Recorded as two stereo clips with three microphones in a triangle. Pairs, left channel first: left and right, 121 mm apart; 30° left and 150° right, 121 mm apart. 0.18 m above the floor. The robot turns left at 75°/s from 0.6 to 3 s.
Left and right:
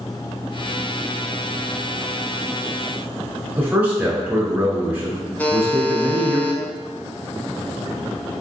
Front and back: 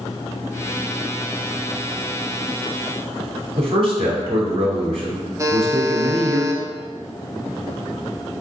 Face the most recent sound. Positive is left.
turn(degrees=160)